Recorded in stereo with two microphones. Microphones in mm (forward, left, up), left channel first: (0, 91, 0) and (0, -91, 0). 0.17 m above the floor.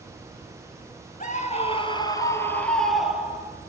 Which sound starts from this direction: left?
A scream, at 1.2 s.